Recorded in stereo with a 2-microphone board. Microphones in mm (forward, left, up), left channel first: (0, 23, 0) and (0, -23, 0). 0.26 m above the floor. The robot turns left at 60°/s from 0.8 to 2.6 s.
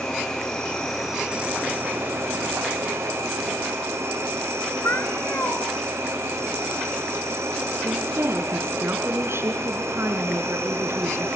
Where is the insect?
15° left, 6 m; by 11.4 s 95° right, 6 m.